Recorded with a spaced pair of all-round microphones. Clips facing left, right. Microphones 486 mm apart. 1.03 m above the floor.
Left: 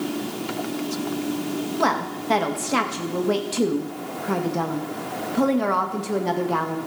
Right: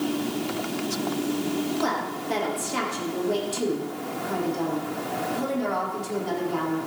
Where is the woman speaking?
80° left, 1.0 m.